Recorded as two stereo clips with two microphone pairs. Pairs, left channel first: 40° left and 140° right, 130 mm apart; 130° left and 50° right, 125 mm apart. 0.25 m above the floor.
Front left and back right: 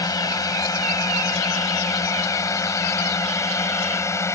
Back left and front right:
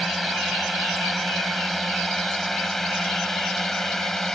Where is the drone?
45° left; by 4.3 s 50° left.